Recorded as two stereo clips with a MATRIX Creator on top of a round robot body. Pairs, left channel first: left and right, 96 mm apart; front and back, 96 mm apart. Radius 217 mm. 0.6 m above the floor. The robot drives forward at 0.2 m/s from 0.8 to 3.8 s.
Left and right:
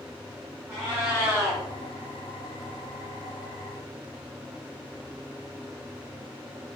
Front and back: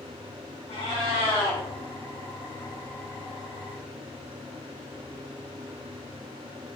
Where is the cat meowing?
20° right, 2 m.